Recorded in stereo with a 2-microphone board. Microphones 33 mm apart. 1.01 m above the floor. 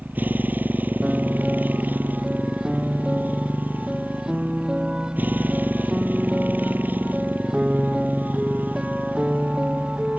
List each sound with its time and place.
0.0 s a motorcycle: 65° right (ahead or behind)
1.0 s a piano: 25° right (ahead or behind)